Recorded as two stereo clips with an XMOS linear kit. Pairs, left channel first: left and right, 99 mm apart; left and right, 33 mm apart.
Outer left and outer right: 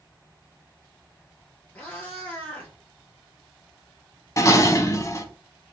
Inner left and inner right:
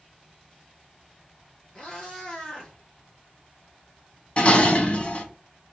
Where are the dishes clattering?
30° left (ahead or behind), 0.8 m.